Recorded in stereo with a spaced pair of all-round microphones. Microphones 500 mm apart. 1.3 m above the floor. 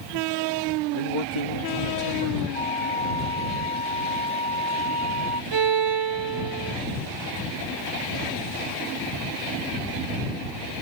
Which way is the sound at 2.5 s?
85° left.